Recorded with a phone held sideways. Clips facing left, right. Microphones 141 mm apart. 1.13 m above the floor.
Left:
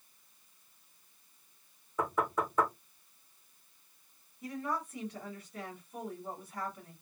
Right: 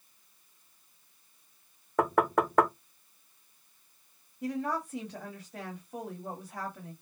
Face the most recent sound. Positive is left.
turn(degrees=-75)  # may be behind; listen again after turning